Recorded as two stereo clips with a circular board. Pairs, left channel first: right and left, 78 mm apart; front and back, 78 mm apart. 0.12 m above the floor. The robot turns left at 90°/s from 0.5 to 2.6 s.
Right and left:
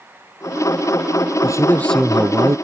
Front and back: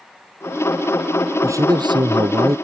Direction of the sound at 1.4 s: 125° right.